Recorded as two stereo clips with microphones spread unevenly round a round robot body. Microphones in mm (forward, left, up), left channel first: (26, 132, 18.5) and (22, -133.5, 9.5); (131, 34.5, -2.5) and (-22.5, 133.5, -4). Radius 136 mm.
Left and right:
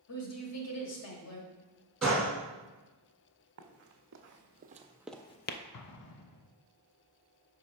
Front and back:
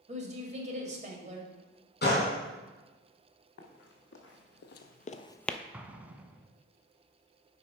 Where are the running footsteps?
55° right, 1.3 m; by 5.6 s 60° left, 0.5 m.